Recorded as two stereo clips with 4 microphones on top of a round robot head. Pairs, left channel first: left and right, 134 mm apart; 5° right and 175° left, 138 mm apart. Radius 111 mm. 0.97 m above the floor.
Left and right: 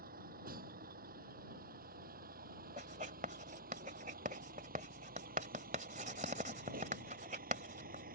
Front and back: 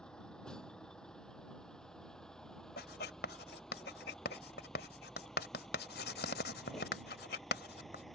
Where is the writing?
35° right.